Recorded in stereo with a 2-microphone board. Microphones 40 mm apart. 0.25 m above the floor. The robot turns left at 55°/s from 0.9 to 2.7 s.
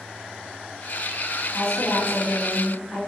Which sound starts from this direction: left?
A woman speaking, at 1.5 s.